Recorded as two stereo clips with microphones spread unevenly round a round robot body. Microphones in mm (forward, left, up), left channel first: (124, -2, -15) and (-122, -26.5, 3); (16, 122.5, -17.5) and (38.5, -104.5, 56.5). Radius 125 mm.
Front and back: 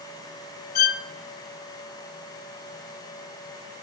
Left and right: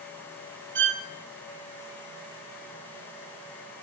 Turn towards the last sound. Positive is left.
turn(degrees=-50)